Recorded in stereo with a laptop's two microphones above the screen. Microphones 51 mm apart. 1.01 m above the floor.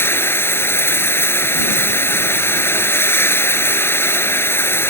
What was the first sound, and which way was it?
Running water, 50° left (ahead or behind).